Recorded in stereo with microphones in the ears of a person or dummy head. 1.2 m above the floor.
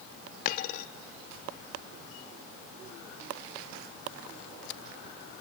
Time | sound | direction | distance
0.5 | a dropped coin | 45° left (ahead or behind) | 0.9 m